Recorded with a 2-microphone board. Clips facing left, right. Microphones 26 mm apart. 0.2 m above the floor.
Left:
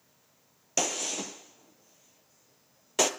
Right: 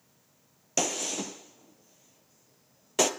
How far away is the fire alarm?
I don't hear a fire alarm.